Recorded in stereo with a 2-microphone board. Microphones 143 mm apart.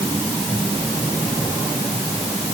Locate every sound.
Only background noise.